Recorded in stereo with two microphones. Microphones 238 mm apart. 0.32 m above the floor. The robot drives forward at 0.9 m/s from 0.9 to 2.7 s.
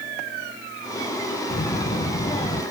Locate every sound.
1.5 s a child speaking: 35° left (ahead or behind), 0.6 m; by 2.6 s 15° left (ahead or behind), 1.1 m